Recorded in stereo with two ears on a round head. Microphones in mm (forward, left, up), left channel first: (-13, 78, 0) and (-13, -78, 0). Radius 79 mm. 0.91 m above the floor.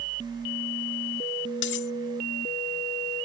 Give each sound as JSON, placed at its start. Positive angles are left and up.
{"t": 1.6, "sound": "cutlery clinking", "side_deg": 75}